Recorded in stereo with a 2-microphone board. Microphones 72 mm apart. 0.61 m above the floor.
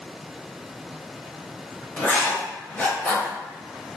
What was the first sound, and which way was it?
Writing, 20° left (ahead or behind).